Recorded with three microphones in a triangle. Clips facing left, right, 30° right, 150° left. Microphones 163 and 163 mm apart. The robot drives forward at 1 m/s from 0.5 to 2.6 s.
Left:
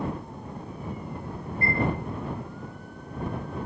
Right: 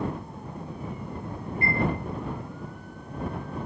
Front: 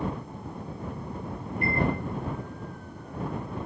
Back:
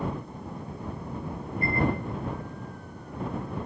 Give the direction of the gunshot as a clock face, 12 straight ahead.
No gunshot in this recording.